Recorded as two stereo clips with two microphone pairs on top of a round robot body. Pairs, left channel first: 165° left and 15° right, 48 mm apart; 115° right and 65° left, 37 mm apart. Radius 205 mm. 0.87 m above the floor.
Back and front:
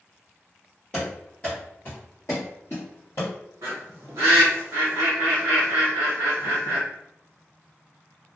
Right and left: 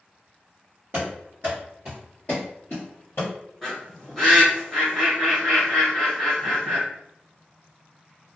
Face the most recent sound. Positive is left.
turn(degrees=-20)